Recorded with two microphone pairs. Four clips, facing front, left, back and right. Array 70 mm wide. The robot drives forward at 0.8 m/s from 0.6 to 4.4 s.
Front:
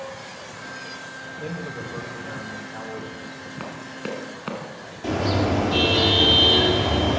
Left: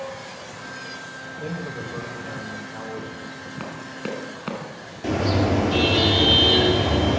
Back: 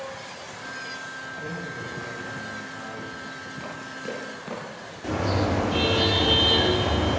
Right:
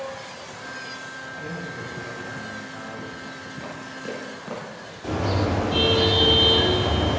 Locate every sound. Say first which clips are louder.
1.4 s a man speaking: left 4 dB, front 3 dB; 40° left, 3.5 m; by 3.5 s 70° left, 2.5 m
3.6 s running footsteps: left 3 dB, front 3 dB; 45° left, 6.5 m; by 4.9 s 55° left, 6 m
5.0 s a car horn: left 3 dB, front 3 dB; 100° left, 5.5 m